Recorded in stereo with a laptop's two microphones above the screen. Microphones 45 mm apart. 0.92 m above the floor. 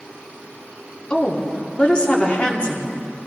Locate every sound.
1.1 s a woman speaking: 25° left (ahead or behind), 2 m